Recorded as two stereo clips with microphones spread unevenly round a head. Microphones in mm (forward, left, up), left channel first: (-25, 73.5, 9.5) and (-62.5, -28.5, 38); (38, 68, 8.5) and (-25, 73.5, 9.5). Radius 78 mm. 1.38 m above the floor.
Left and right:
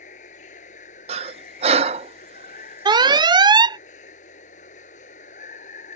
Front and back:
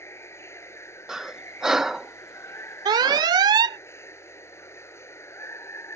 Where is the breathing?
100° right.